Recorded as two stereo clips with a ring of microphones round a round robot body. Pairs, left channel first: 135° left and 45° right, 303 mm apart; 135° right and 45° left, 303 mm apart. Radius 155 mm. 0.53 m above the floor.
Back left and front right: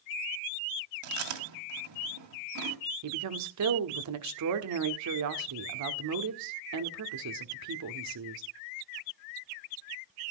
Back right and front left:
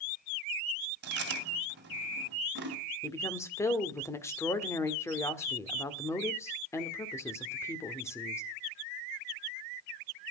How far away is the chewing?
About 2.5 m.